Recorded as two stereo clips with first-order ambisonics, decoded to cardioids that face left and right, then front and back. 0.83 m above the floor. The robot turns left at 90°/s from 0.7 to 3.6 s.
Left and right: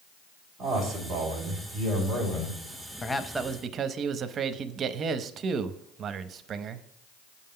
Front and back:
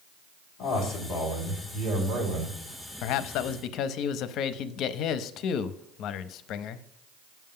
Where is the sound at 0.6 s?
5° left, 4 m; by 2.6 s 170° right, 4 m.